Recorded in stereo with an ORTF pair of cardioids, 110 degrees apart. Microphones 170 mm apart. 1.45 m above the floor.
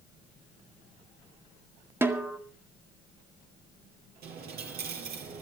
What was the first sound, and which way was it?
A snare drum, 15° right.